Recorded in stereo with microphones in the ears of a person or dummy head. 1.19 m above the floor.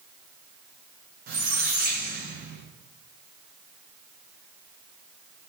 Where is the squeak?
45° right (ahead or behind), 0.5 m.